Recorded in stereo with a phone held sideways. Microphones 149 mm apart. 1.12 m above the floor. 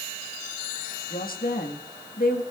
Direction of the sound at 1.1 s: 75° left (ahead or behind).